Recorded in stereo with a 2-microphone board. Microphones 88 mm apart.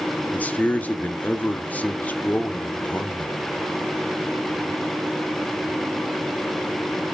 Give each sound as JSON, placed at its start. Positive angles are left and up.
{"t": 0.3, "sound": "a man speaking", "side_deg": 15, "distance_m": 1.1}